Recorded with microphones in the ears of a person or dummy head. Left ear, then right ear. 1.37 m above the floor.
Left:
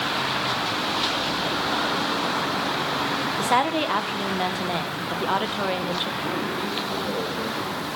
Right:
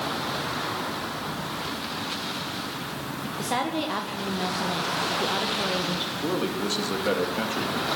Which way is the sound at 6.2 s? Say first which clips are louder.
Left 1 dB; 75° right (ahead or behind).